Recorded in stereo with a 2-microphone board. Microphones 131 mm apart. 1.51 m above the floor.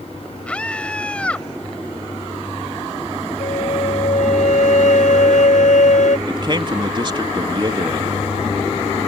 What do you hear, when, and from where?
0.5 s a scream: 10° left (ahead or behind)
3.4 s a flute: 70° left (ahead or behind)
6.3 s a man speaking: 40° right (ahead or behind)